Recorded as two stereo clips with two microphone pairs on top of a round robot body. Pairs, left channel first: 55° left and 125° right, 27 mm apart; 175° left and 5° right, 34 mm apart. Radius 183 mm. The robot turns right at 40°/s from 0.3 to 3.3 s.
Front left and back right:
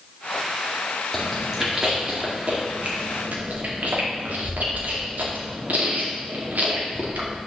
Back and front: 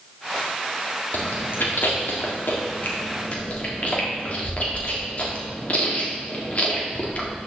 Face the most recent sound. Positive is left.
turn(degrees=-135)